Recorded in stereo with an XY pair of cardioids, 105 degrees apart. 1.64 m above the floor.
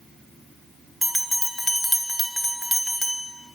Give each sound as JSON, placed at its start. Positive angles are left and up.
{"t": 1.0, "sound": "a bell", "azimuth_deg": 5, "distance_m": 1.3}